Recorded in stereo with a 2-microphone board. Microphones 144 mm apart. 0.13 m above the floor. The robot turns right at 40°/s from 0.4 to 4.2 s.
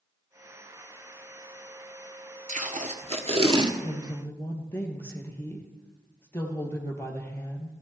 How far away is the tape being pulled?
About 1.5 m.